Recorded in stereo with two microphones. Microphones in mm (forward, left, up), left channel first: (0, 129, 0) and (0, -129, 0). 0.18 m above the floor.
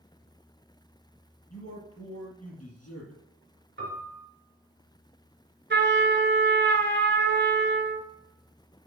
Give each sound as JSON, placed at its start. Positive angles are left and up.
{"t": 1.5, "sound": "a man speaking", "side_deg": 60, "distance_m": 3.5}
{"t": 3.8, "sound": "a piano", "side_deg": -45, "distance_m": 3.0}
{"t": 5.7, "sound": "a trumpet", "side_deg": -45, "distance_m": 1.0}